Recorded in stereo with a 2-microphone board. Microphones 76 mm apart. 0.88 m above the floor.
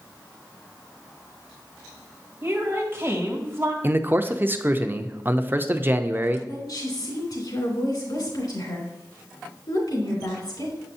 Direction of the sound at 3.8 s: 30° right (ahead or behind).